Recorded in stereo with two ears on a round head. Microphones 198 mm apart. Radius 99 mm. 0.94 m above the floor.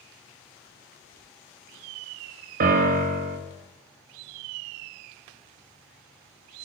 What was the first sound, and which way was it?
A piano, 40° right (ahead or behind).